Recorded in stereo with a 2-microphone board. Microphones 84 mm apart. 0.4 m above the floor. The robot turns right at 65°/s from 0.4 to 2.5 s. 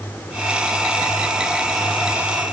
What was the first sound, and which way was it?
Only background noise.